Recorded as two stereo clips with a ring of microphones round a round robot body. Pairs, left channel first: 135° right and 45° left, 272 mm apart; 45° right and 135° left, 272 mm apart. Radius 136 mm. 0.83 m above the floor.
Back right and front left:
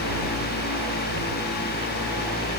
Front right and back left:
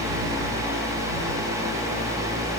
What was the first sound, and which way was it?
Only background noise.